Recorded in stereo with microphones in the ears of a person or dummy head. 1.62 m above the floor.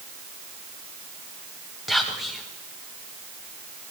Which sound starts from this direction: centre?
Whispering, at 1.9 s.